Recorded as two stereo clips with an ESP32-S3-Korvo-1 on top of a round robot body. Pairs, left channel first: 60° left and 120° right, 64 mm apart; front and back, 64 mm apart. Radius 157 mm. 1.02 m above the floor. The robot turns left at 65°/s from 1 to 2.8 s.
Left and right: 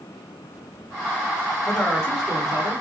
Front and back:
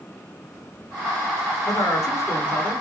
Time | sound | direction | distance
1.7 | a man speaking | 10° right | 3.5 m